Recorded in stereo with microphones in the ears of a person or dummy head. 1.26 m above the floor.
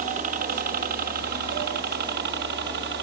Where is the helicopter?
45° right (ahead or behind); by 3.0 s 60° right (ahead or behind).